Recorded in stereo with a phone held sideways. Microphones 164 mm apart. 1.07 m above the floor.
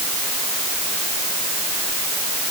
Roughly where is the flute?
No flute in this recording.